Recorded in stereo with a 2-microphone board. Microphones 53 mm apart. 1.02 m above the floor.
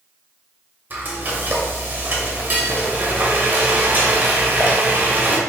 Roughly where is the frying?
Right.